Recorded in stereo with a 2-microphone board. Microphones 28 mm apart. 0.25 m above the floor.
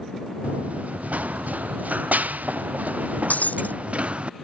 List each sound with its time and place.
0.4 s running footsteps: 65° right (ahead or behind); by 4.3 s 45° right (ahead or behind)
3.3 s breaking glass: 85° left